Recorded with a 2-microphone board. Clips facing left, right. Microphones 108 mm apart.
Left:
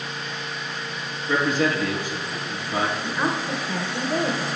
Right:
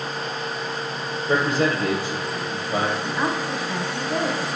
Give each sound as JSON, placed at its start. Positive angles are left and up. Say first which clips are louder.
{"t": 1.3, "sound": "a man speaking", "louder": "right 1 dB", "side_deg": -30, "distance_m": 2.5}
{"t": 3.0, "sound": "a woman speaking", "louder": "right 1 dB", "side_deg": 20, "distance_m": 1.5}